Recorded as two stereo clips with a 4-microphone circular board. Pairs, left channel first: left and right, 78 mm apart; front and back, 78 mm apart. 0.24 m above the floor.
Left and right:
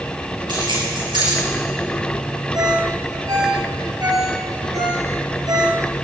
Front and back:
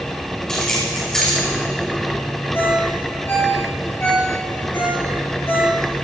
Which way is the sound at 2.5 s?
60° right.